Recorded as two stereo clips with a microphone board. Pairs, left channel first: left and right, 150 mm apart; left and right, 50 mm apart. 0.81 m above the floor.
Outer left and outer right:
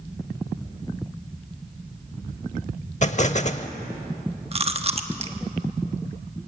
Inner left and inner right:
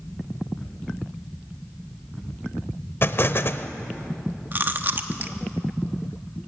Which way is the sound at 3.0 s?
50° left (ahead or behind).